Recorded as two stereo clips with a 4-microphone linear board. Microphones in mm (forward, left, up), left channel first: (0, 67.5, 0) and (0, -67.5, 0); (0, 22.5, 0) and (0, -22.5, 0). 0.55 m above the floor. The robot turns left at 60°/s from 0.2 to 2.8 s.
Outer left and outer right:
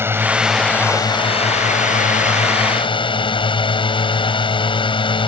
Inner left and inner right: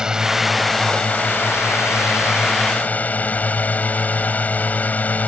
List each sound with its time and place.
0.0 s a drone: 160° right; by 5.3 s 40° left